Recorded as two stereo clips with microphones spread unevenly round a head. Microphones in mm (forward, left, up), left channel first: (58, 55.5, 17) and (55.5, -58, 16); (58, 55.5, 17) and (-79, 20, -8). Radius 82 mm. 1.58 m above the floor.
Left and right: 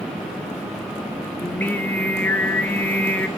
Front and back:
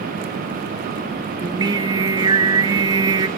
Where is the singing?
150° left, 1.1 m.